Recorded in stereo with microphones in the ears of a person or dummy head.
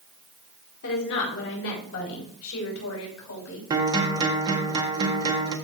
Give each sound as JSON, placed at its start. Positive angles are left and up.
{"t": 0.8, "sound": "a woman speaking", "side_deg": 60, "distance_m": 4.0}
{"t": 3.7, "sound": "a guitar", "side_deg": -25, "distance_m": 1.6}